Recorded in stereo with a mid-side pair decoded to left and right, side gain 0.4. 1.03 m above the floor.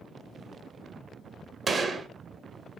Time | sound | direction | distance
1.7 | a gunshot | 50° right | 1.3 m